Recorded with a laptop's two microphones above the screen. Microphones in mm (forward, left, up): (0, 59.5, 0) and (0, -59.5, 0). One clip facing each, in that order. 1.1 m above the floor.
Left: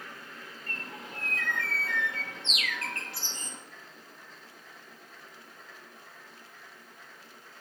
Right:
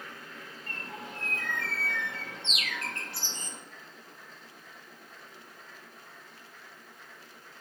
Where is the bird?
30° right (ahead or behind), 1.3 m.